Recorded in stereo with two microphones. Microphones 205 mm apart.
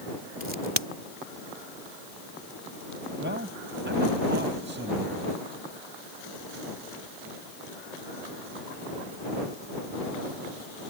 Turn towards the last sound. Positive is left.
turn(degrees=-55)  # may be behind; listen again after turning